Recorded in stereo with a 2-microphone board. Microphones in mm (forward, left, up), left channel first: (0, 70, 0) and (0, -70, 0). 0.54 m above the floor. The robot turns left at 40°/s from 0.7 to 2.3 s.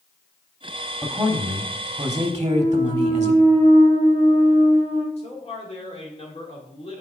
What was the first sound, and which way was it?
A man speaking, 15° right.